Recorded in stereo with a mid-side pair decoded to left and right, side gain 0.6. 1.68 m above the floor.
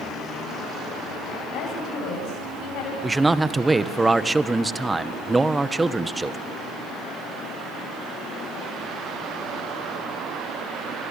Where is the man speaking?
15° right, 1.7 m.